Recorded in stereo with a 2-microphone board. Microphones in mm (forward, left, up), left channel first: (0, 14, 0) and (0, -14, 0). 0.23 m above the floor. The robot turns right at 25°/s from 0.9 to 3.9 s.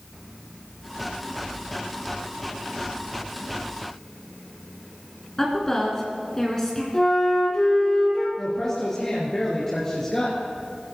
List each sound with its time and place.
5.4 s a woman speaking: 20° left (ahead or behind), 3 m
6.9 s a flute: 25° left (ahead or behind), 3.5 m
8.4 s a woman speaking: 20° left (ahead or behind), 3 m